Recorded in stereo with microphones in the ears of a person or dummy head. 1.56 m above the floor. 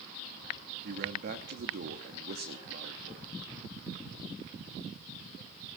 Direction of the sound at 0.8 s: 65° right (ahead or behind).